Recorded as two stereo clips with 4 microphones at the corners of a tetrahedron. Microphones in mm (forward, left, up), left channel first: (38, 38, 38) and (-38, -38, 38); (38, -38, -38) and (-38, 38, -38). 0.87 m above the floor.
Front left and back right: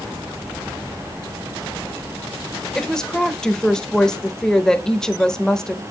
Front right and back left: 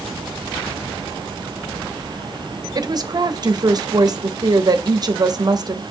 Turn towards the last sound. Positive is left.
turn(degrees=125)